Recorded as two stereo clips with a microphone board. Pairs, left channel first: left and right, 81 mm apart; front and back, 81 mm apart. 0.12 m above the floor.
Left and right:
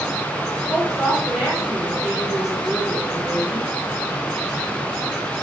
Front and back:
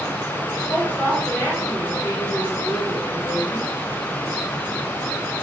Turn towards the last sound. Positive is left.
turn(degrees=-15)